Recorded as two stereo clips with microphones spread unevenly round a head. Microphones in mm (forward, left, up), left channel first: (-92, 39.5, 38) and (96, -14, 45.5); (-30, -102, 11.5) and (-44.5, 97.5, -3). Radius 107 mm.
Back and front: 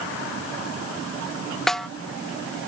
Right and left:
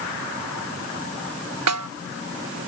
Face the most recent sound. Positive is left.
turn(degrees=75)